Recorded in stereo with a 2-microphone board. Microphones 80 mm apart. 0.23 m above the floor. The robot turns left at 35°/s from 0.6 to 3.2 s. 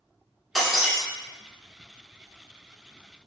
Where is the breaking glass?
Centre (ahead or behind), 1.9 m; by 1.0 s 10° right (ahead or behind), 1.9 m.